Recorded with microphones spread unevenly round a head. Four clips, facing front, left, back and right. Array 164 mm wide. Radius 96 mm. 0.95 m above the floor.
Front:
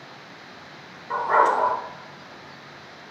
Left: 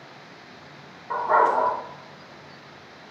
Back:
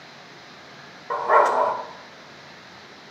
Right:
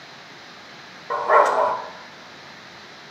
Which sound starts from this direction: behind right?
A dog barking, at 1.1 s.